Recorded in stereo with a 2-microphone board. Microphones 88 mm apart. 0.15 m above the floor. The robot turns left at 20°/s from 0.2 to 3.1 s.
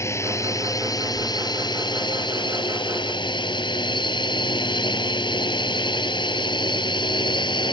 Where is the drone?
145° left; by 7.7 s 85° left.